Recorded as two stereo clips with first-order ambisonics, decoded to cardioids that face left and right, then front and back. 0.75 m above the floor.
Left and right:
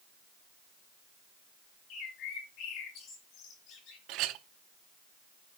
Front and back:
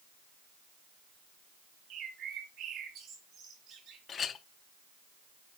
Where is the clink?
60° right, 0.7 m.